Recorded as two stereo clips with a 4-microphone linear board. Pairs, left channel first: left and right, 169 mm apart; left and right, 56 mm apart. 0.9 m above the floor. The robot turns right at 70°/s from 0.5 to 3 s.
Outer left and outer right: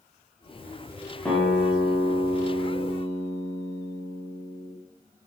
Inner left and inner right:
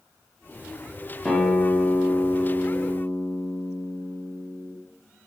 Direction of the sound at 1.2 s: 5° left (ahead or behind).